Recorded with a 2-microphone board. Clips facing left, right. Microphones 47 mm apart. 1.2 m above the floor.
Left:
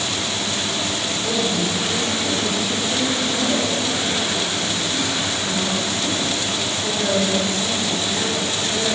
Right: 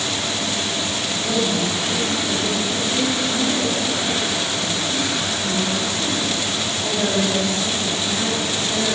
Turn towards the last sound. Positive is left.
turn(degrees=-35)  # may be behind; listen again after turning